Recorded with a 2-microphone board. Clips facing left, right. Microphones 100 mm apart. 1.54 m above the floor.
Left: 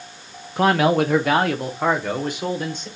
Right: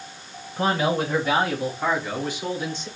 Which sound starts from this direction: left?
A man speaking, at 0.6 s.